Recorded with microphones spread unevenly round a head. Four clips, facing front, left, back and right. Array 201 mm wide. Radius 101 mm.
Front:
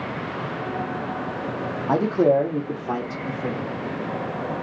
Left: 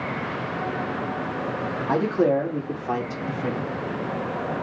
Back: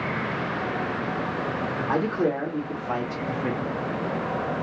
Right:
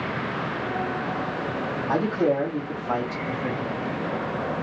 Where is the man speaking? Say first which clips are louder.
Left 2 dB, front 7 dB; 15° left, 1.6 m; by 3.7 s 60° left, 1.9 m.